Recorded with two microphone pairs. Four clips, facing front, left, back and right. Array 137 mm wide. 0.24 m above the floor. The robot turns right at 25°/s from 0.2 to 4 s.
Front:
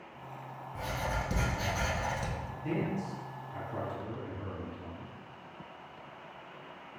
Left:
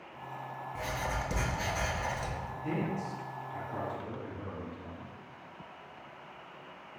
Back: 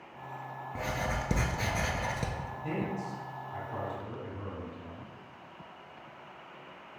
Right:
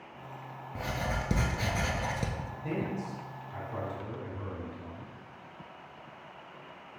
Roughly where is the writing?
Behind.